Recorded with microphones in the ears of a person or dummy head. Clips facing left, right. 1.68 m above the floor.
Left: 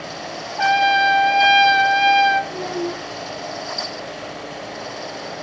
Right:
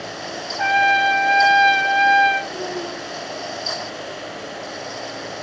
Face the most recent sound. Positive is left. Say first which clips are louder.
# left 3 dB
turn(degrees=40)  # may be behind; listen again after turning